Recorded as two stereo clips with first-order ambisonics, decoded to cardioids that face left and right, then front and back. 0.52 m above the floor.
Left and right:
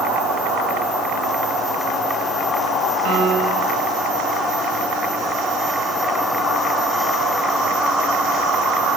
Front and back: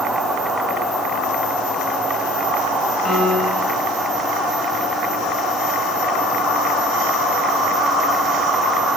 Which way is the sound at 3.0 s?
70° right.